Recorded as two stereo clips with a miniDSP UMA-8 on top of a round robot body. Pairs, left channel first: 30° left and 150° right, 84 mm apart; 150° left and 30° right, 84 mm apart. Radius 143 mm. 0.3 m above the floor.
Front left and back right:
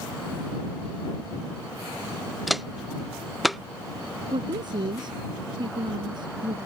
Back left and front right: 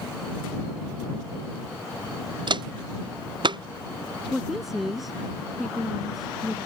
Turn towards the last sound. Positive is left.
turn(degrees=-120)